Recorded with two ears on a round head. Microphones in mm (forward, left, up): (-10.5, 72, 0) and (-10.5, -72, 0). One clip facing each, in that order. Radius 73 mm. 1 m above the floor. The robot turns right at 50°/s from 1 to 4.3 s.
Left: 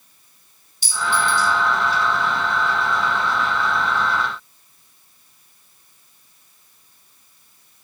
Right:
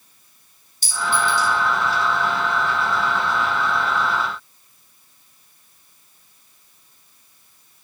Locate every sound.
0.8 s a clink: 45° right (ahead or behind), 3 m; by 1.5 s 65° right (ahead or behind), 3 m